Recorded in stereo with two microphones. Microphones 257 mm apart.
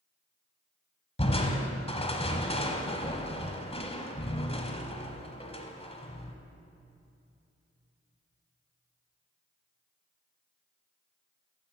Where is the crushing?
25° left (ahead or behind), 1.0 m.